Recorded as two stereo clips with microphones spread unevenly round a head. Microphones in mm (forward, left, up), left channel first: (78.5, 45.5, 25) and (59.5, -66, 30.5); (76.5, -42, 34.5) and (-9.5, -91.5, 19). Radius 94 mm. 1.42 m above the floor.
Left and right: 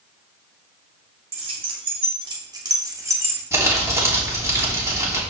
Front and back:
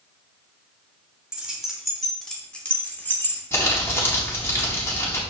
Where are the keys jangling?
65° right, 3.5 m; by 3.4 s 35° right, 3 m.